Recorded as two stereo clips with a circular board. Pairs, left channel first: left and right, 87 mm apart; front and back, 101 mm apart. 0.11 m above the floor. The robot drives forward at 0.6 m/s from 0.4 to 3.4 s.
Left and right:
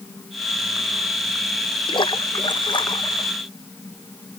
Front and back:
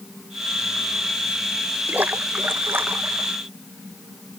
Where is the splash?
110° left; by 3.3 s 115° left.